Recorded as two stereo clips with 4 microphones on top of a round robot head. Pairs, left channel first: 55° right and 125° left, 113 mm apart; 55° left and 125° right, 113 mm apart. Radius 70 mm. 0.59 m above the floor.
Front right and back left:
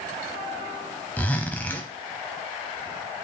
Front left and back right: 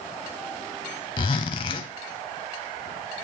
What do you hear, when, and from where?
1.2 s a zipper: 15° left, 0.5 m